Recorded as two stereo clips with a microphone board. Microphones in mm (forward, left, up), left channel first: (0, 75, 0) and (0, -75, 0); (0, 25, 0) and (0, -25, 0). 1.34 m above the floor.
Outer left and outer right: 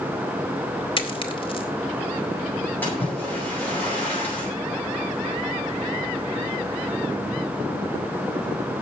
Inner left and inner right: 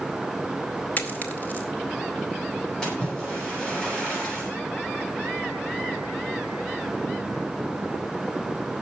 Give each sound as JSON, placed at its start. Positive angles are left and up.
{"t": 1.0, "sound": "a dropped coin", "side_deg": 35, "distance_m": 2.0}
{"t": 2.8, "sound": "a splash", "side_deg": 10, "distance_m": 9.0}